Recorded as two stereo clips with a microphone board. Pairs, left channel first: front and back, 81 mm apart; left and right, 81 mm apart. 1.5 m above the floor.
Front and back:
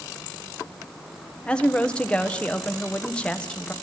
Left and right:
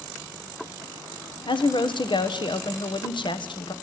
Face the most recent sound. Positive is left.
turn(degrees=75)